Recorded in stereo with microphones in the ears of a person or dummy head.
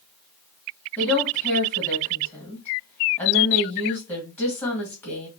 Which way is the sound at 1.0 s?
20° left (ahead or behind).